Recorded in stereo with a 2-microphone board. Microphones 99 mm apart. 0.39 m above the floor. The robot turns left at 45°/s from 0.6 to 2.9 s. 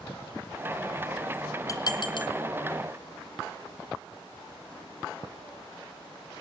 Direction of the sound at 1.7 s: 35° left (ahead or behind).